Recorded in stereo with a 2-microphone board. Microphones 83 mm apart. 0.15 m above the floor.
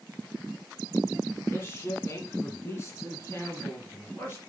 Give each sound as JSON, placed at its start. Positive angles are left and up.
{"t": 1.5, "sound": "a man speaking", "side_deg": 25, "distance_m": 1.5}